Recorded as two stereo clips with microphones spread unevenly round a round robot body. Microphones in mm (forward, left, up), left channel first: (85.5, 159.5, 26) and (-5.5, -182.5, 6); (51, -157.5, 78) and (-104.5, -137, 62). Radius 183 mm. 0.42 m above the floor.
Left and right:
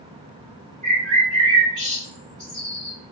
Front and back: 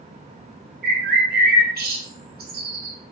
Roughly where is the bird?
Behind.